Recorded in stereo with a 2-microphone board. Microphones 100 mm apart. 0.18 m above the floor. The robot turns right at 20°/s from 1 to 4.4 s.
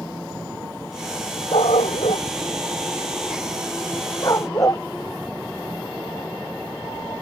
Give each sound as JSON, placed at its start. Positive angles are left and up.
{"t": 1.5, "sound": "a dog barking", "side_deg": 85}